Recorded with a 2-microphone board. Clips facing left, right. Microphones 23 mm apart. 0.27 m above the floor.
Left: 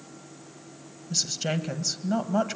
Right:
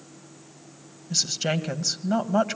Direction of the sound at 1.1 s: 15° right (ahead or behind).